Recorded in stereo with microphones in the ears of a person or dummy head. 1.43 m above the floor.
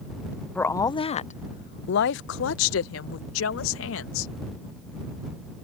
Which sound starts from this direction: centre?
A woman speaking, at 0.6 s.